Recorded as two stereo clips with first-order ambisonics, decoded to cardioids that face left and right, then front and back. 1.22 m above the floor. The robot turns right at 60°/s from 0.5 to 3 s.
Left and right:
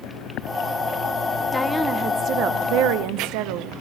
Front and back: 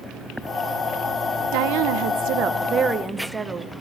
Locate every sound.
1.5 s a woman speaking: 170° left, 0.5 m; by 3.7 s 100° right, 0.5 m